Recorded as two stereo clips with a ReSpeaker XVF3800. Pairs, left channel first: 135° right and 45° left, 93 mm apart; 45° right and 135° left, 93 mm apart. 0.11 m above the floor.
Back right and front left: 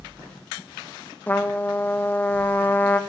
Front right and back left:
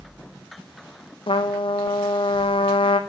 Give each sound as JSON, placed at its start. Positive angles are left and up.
{"t": 1.3, "sound": "a trumpet", "azimuth_deg": -65, "distance_m": 1.0}